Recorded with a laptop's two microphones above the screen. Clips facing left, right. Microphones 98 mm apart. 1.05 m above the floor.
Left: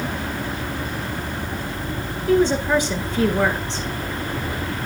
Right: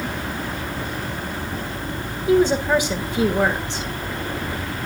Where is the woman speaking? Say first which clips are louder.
Right 1 dB; 10° right (ahead or behind), 1.1 m.